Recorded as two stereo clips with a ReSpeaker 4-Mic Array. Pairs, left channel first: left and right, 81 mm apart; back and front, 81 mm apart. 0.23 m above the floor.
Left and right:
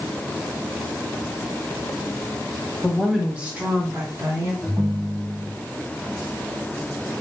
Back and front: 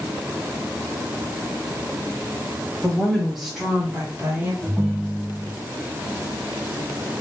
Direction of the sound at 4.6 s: 85° right.